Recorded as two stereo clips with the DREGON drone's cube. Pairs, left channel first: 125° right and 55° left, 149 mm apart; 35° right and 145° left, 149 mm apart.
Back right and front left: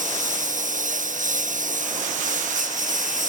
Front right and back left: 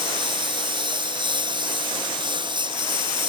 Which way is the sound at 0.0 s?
85° left.